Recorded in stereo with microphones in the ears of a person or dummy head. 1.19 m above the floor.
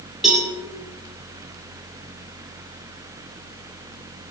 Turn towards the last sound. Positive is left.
turn(degrees=-5)  # may be behind; listen again after turning